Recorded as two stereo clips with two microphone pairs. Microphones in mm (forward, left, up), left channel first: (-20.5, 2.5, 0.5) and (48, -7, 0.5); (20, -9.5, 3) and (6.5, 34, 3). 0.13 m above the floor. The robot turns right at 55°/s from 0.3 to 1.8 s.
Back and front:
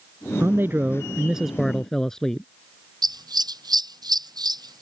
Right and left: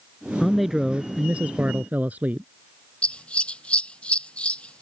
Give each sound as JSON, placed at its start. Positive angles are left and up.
{"t": 0.4, "sound": "a man speaking", "azimuth_deg": 15}
{"t": 3.0, "sound": "scissors", "azimuth_deg": -10}